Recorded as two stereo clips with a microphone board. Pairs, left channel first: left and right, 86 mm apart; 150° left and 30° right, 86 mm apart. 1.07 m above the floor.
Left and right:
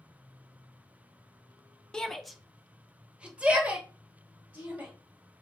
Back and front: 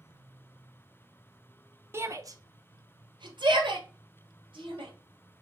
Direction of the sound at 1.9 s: 15° left.